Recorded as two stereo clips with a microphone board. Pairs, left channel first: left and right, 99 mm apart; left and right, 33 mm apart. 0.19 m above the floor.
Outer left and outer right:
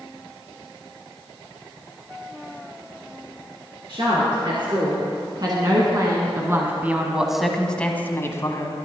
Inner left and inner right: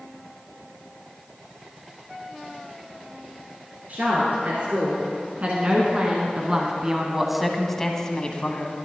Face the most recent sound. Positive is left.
turn(degrees=40)  # may be behind; listen again after turning